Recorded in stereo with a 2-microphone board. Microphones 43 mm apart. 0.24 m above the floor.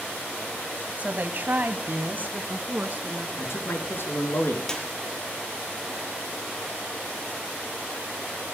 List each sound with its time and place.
1.0 s a woman speaking: 35° right (ahead or behind), 1.6 m; by 3.3 s 40° right (ahead or behind), 3.5 m
3.4 s a man speaking: 60° left (ahead or behind), 4.5 m
4.7 s a clap: 15° left (ahead or behind), 4.5 m